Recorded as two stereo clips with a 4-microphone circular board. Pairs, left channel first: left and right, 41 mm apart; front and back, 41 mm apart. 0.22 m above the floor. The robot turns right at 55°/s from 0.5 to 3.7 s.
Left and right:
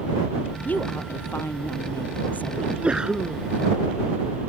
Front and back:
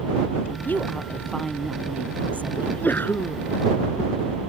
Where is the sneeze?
50° right; by 3.4 s straight ahead.